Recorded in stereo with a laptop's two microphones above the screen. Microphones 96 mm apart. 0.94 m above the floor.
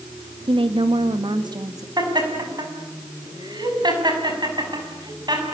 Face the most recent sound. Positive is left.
turn(degrees=-50)  # may be behind; listen again after turning